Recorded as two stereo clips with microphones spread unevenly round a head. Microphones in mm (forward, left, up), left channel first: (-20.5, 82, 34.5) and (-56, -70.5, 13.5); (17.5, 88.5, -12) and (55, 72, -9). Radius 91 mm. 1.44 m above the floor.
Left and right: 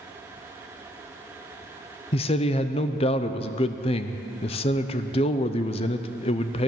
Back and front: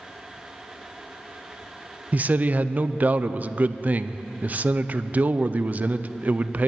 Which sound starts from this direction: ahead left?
A man speaking, at 2.1 s.